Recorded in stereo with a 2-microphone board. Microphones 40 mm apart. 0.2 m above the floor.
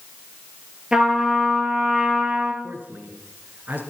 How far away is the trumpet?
About 3.5 m.